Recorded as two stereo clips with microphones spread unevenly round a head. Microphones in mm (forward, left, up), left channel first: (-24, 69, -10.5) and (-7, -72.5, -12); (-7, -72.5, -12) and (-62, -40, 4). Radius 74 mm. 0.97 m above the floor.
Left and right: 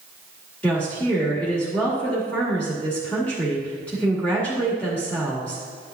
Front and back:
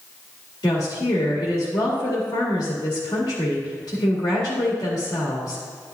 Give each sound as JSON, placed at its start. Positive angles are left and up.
{"t": 0.6, "sound": "a woman speaking", "azimuth_deg": 15, "distance_m": 1.8}